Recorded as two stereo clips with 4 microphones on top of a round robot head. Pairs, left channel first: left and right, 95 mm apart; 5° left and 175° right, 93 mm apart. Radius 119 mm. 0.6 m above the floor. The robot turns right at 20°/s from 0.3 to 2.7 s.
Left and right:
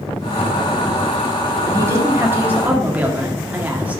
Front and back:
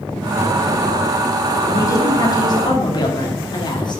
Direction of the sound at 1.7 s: 40° right.